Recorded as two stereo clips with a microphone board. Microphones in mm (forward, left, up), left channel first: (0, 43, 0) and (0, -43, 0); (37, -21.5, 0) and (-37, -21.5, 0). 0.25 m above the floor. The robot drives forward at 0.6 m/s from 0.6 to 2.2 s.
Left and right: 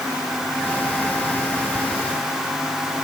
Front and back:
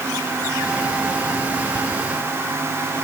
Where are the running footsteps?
I don't hear running footsteps.